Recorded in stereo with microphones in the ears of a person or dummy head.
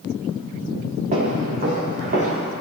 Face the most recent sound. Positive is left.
turn(degrees=-50)  # may be behind; listen again after turning